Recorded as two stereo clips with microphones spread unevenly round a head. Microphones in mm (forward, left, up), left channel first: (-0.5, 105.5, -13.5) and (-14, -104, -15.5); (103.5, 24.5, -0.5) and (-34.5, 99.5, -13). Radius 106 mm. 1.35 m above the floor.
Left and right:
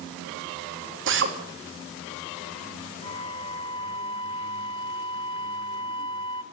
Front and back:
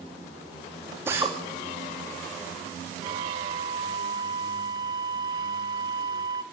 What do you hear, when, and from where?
1.1 s a drill: 130° right, 3 m
3.0 s a flute: 115° left, 1.0 m